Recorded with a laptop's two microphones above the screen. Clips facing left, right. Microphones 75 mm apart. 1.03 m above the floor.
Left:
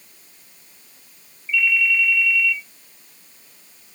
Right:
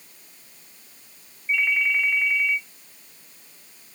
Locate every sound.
1.5 s a ringtone: 35° right (ahead or behind), 1.4 m